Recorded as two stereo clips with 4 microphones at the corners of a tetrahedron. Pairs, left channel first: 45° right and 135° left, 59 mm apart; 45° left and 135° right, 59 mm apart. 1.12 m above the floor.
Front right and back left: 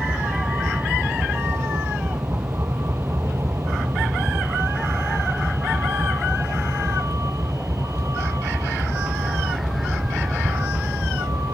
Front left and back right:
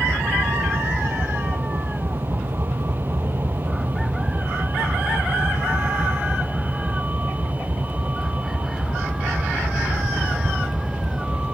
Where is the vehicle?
Straight behind; by 11.6 s 150° left.